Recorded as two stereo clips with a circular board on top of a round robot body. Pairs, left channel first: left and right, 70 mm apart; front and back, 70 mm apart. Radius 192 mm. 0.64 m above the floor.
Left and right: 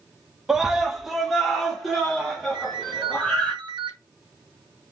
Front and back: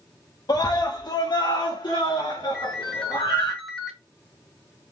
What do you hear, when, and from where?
0.5 s a scream: 10° right, 1.4 m; by 3.5 s 5° left, 3.5 m
2.5 s a ringtone: 85° right, 0.7 m